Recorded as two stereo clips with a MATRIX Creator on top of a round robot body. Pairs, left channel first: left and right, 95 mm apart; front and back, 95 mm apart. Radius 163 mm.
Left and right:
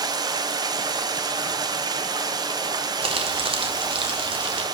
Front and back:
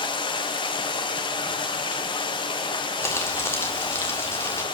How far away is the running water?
About 0.9 m.